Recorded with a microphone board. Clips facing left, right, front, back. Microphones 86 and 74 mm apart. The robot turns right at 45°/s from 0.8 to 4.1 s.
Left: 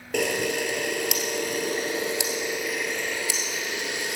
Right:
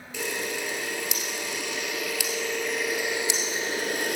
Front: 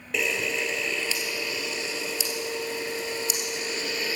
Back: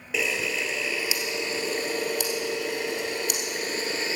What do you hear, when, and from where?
0.1 s a camera shutter: 90° left, 1.9 m; by 4.2 s 120° right, 1.9 m